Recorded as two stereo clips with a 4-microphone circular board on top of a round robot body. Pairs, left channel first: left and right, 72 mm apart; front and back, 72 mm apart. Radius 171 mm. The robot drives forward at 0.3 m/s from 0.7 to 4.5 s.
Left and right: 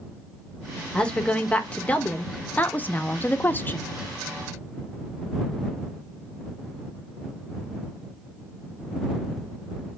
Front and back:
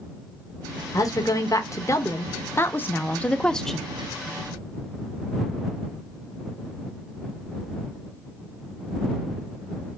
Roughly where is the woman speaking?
Ahead.